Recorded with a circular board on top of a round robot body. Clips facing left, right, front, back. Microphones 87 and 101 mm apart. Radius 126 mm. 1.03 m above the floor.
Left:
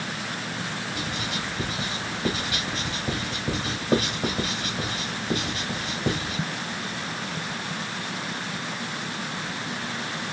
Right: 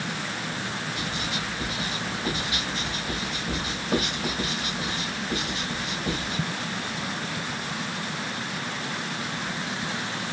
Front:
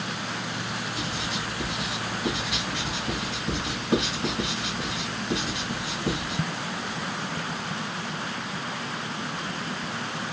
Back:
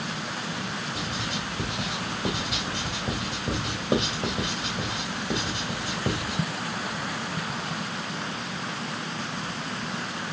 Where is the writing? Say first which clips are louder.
Even, front 1 dB; 140° left, 2 m.